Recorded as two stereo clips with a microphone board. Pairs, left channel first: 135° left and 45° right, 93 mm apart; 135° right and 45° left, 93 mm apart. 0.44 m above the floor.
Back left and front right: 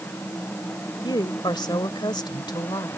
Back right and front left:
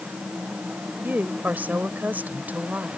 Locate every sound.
1.0 s a woman speaking: 110° left